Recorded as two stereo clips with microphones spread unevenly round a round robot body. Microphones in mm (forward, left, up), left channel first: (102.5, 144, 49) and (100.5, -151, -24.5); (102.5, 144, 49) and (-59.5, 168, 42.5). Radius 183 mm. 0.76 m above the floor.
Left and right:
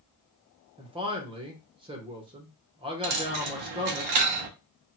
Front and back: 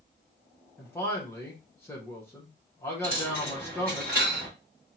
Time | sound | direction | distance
0.8 | a man speaking | 75° right | 0.8 m
3.0 | a dropped coin | 120° right | 0.5 m